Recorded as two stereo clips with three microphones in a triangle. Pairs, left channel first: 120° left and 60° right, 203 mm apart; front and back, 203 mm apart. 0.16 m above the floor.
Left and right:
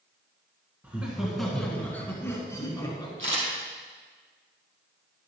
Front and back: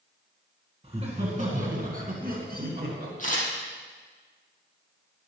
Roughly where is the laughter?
Behind right.